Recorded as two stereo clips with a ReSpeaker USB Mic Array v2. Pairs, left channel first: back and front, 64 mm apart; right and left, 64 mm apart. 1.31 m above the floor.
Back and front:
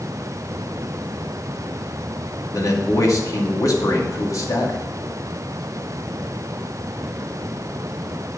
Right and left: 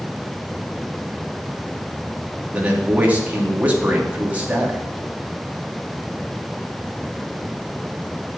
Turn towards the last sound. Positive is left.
turn(degrees=155)